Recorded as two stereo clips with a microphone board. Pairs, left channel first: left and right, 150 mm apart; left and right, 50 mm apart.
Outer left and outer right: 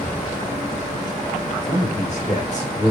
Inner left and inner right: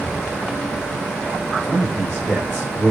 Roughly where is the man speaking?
Left.